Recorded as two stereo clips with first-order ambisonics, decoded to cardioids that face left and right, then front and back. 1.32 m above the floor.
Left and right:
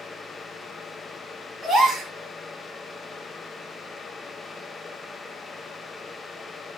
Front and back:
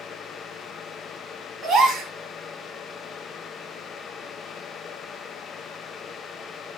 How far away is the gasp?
About 1.1 m.